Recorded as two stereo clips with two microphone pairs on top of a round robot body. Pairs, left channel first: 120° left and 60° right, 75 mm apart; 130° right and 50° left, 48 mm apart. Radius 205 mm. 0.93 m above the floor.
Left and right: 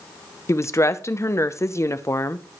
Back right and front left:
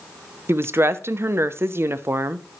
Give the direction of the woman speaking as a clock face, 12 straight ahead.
9 o'clock.